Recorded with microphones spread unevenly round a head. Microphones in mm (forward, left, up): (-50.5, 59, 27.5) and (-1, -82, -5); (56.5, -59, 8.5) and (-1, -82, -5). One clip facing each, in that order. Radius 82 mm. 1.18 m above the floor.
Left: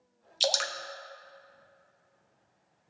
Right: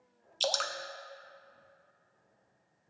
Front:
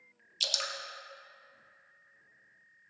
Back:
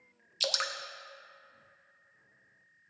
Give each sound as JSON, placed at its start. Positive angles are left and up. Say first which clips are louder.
{"t": 0.4, "sound": "dripping", "louder": "left 2 dB, back 4 dB", "azimuth_deg": -165, "distance_m": 0.7}